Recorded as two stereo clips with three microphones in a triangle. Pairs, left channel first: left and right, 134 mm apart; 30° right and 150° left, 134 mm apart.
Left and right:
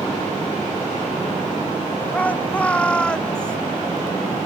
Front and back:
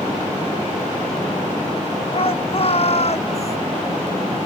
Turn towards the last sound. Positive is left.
turn(degrees=5)